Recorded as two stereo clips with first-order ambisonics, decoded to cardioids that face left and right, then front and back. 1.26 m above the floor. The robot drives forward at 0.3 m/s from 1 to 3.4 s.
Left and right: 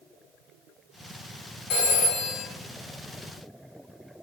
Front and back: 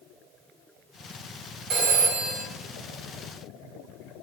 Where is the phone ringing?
140° left, 0.8 m; by 2.4 s 150° left, 1.0 m.